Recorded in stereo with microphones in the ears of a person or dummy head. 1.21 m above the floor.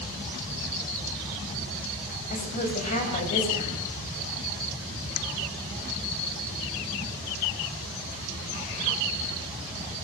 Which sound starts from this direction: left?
A woman speaking, at 2.3 s.